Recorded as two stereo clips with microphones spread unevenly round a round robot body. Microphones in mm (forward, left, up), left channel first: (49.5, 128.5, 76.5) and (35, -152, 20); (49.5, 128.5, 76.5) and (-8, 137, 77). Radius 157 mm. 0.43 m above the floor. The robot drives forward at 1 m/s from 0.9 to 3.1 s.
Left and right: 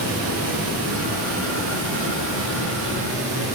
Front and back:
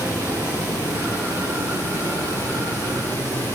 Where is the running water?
135° right, 5.5 m; by 3.6 s 145° right, 7 m.